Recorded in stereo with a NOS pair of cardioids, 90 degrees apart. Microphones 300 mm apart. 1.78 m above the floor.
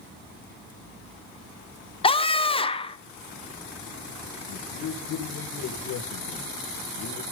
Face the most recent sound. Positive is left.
turn(degrees=65)